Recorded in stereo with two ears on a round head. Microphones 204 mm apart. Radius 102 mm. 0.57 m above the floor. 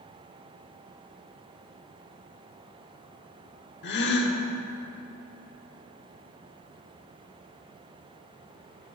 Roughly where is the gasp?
Left.